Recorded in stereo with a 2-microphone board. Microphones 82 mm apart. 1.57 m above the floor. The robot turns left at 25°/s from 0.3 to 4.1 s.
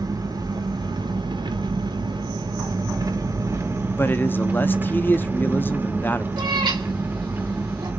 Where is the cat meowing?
70° right (ahead or behind), 2 m.